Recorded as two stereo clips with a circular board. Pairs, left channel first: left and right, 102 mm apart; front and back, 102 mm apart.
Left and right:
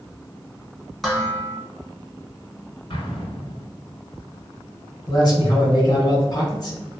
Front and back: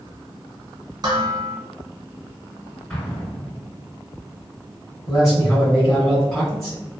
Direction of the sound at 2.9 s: 80° left.